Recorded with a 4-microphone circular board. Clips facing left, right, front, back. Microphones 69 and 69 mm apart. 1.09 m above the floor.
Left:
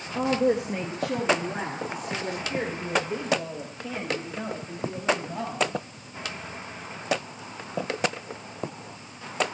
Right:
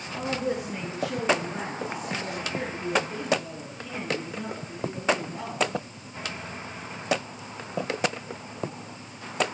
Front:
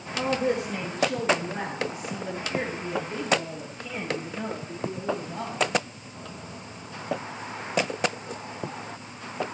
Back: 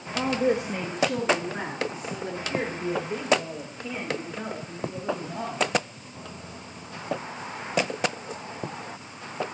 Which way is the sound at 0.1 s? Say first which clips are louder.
Left 6 dB, back 1 dB; 105° left.